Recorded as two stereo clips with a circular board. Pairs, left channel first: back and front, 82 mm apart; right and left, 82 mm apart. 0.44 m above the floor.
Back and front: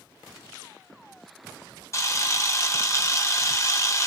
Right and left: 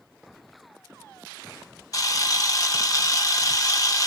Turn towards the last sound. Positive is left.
turn(degrees=-130)